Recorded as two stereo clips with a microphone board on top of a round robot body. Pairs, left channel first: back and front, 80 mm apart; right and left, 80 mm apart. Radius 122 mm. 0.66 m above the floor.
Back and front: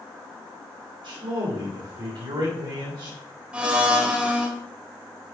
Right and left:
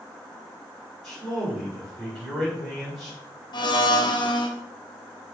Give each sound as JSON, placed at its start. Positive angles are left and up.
{"t": 1.0, "sound": "a man speaking", "azimuth_deg": -5, "distance_m": 3.5}
{"t": 3.5, "sound": "a blender", "azimuth_deg": -75, "distance_m": 1.5}